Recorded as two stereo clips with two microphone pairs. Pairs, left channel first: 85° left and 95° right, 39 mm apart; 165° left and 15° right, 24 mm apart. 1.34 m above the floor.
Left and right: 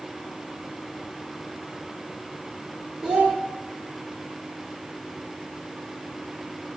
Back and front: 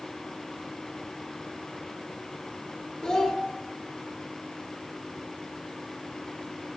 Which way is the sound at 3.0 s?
135° right.